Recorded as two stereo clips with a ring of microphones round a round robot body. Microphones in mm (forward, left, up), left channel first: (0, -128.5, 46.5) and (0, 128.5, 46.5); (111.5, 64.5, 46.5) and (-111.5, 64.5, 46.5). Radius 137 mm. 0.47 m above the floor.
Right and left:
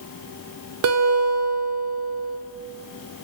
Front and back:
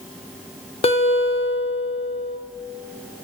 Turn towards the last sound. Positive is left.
turn(degrees=65)